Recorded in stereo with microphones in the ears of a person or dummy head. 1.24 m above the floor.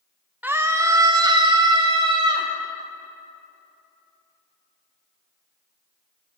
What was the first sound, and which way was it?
A scream, 5° right (ahead or behind).